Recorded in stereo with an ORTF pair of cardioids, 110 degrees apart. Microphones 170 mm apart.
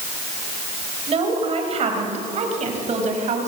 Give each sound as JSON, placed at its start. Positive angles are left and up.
{"t": 1.1, "sound": "a woman speaking", "azimuth_deg": -40, "distance_m": 5.0}